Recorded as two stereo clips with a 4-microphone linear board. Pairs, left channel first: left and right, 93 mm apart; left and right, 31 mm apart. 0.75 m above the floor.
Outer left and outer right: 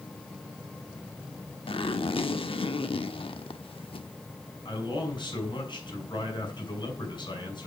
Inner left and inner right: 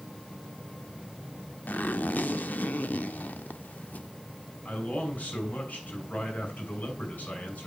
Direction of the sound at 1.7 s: 75° left (ahead or behind).